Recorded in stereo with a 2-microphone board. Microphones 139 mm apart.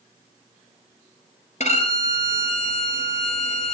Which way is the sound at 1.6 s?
55° left (ahead or behind).